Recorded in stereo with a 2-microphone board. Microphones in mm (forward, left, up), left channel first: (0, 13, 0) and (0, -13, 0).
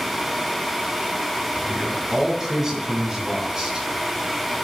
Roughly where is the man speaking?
Centre.